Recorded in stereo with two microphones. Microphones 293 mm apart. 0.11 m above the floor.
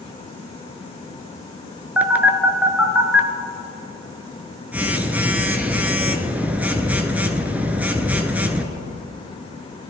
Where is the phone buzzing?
5° right (ahead or behind), 0.8 m.